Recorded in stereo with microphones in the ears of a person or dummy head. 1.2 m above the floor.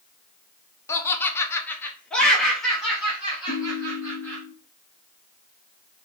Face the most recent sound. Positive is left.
turn(degrees=40)  # may be behind; listen again after turning